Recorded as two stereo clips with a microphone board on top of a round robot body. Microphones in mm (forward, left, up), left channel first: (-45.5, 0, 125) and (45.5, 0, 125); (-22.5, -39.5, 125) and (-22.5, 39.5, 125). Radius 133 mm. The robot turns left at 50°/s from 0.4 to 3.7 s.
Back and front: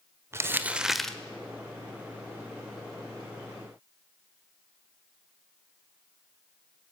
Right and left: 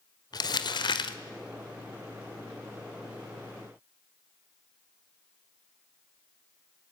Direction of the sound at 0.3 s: 60° right.